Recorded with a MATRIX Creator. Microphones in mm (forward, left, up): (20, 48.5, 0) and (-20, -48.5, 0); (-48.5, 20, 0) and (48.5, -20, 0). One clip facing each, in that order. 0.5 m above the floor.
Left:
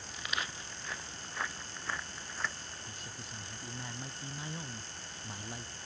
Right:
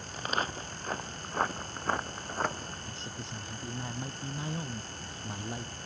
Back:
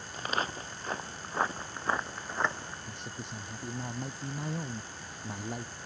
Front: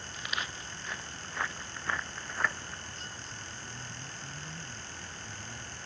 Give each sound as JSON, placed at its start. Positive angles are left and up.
{"t": 0.1, "sound": "footsteps", "azimuth_deg": -155}
{"t": 2.9, "sound": "a man speaking", "azimuth_deg": 180}